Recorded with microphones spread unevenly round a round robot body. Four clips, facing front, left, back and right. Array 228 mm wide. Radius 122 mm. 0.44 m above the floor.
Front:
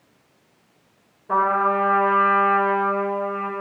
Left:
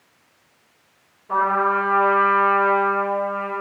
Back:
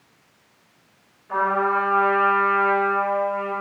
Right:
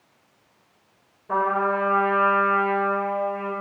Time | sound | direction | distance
1.3 | a trumpet | 20° right | 8.5 m